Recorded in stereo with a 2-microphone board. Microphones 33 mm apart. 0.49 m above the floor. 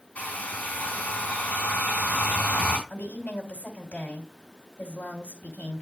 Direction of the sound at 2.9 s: 55° left (ahead or behind).